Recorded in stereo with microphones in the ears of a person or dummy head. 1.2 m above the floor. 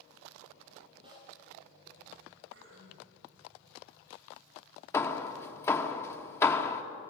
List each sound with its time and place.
1.0 s a snare drum: 25° right (ahead or behind), 8 m
2.5 s throat clearing: 75° right (ahead or behind), 5.5 m
4.9 s hammering: 15° left (ahead or behind), 1.3 m